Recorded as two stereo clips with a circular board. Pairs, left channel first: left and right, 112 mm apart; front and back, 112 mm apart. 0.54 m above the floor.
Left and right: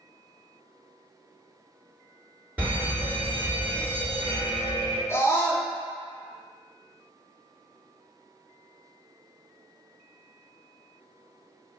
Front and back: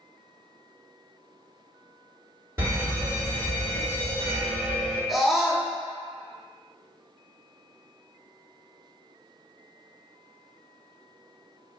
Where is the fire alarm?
150° right, 1.9 m.